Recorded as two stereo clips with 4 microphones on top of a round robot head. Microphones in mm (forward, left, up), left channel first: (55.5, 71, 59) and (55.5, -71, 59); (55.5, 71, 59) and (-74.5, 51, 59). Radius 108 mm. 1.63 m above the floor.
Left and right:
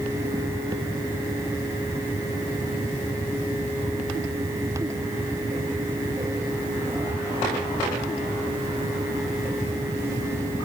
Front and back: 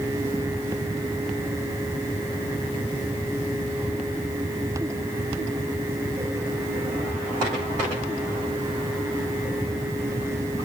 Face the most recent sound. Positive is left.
No sound to turn to.